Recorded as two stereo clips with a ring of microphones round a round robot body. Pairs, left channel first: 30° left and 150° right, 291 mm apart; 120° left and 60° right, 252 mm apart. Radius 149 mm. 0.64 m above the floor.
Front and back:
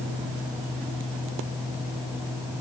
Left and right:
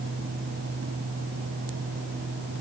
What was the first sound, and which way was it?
Only background noise.